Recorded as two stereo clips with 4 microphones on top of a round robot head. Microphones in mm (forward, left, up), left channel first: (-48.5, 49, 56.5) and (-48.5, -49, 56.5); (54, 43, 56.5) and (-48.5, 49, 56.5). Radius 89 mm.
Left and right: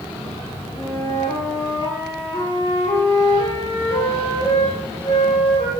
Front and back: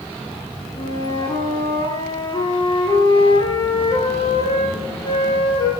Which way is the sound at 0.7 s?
45° left.